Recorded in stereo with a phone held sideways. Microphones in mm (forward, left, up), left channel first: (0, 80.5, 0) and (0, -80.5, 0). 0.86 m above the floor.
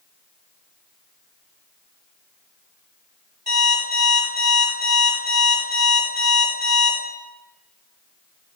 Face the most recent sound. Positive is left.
turn(degrees=-75)  # may be behind; listen again after turning